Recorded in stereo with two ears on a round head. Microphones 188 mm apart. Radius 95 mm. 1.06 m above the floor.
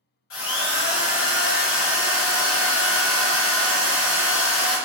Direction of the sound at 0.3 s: 65° left (ahead or behind).